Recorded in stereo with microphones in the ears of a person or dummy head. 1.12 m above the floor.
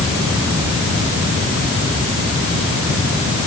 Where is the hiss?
I don't hear a hiss.